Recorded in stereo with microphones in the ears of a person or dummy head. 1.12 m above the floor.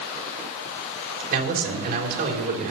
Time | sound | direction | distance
1.3 | a man speaking | 55° right (ahead or behind) | 3 m